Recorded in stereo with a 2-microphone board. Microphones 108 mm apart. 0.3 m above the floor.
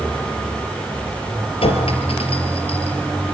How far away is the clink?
About 4 m.